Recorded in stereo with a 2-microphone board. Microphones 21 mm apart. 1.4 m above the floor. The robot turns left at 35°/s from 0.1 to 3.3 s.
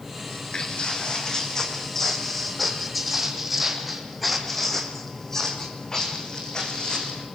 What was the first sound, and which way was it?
Footsteps, 55° left (ahead or behind).